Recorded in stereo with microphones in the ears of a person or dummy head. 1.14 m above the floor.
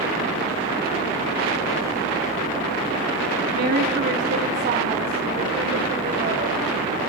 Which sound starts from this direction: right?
A woman speaking, at 3.5 s.